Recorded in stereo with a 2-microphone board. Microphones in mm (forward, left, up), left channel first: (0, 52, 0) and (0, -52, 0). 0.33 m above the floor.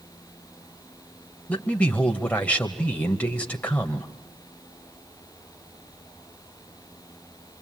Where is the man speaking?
15° left (ahead or behind), 1.2 m.